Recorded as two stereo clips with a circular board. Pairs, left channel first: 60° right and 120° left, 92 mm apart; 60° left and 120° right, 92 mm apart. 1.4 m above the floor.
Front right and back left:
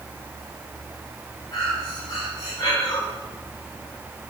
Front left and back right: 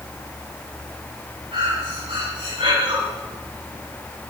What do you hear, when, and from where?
1.5 s breathing: 110° right, 7 m